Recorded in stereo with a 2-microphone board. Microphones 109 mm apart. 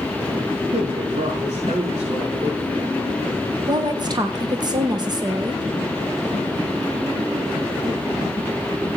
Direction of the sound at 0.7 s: 85° right.